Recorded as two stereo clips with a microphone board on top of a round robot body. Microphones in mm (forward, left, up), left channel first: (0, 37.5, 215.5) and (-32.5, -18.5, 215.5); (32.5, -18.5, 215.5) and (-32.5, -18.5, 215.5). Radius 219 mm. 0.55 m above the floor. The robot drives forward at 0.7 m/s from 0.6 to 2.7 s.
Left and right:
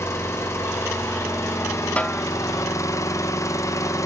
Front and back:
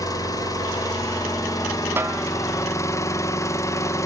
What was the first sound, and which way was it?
An engine running, 15° left.